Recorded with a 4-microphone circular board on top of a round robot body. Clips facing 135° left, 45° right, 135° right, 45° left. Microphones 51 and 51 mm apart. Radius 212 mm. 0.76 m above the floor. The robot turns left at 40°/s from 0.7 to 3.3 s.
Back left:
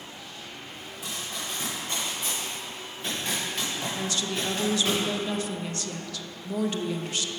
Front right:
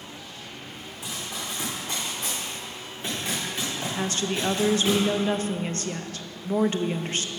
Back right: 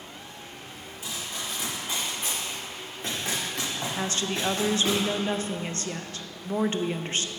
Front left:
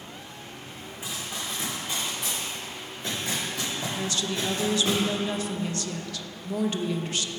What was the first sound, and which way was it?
Running footsteps, 20° right.